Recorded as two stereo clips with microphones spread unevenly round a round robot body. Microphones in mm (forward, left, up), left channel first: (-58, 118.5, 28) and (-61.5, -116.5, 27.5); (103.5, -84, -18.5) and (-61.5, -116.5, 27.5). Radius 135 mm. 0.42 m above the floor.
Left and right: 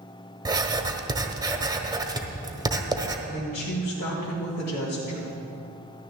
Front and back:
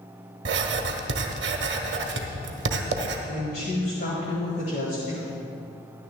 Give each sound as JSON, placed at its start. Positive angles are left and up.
{"t": 0.5, "sound": "writing", "azimuth_deg": -165, "distance_m": 1.0}
{"t": 3.3, "sound": "a woman speaking", "azimuth_deg": 50, "distance_m": 1.7}